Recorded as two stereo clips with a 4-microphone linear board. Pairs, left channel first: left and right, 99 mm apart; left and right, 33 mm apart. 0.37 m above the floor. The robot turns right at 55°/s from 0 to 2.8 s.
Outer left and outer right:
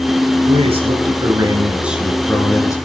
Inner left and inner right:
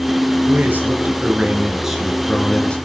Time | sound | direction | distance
0.5 | a man speaking | 90° right | 5.5 m